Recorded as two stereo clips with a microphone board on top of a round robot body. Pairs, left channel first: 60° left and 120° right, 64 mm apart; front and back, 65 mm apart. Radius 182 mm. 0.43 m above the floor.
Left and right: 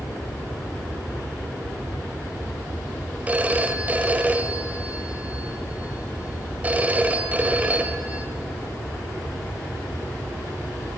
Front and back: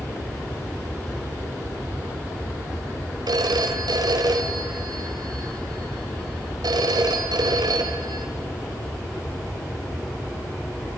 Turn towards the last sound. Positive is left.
turn(degrees=170)